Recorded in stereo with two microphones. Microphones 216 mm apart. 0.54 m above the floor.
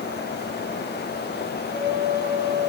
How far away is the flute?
About 9.5 m.